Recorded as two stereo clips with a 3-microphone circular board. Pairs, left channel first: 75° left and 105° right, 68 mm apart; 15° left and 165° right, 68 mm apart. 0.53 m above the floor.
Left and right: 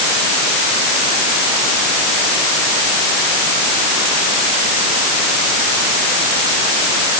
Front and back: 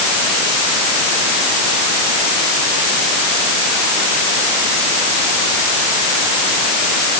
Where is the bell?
I don't hear a bell.